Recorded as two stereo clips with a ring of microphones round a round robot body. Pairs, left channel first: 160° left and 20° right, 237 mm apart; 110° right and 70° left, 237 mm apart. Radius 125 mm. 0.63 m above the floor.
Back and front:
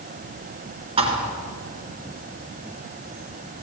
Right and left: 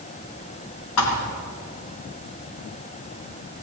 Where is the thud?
90° right, 3 m.